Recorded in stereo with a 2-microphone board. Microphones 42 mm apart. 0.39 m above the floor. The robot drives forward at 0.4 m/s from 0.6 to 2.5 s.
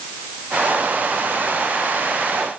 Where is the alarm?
I don't hear an alarm.